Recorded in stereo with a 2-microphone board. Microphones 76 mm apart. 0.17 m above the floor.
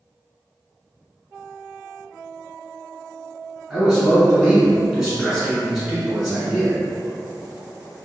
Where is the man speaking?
10° right (ahead or behind), 1.5 m.